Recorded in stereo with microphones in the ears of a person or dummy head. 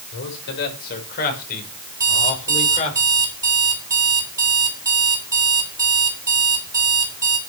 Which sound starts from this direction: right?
An alarm clock, at 2.0 s.